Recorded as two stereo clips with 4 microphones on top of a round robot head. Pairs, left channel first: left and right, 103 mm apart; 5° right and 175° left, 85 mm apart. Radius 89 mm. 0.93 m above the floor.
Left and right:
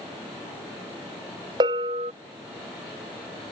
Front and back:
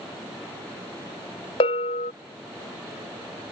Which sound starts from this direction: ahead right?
A bell, at 1.6 s.